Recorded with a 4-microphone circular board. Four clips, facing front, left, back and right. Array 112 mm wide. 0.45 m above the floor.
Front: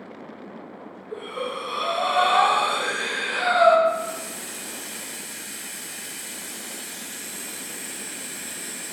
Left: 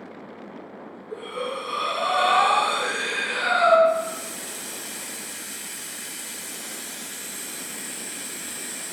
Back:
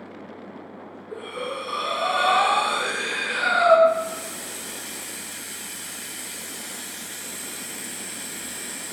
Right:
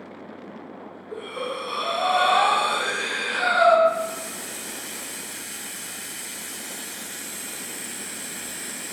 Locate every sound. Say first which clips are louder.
1.1 s breathing: left 1 dB, front 1 dB; 45° right, 2.5 m
3.9 s a hiss: even, back 2 dB; 110° right, 1.6 m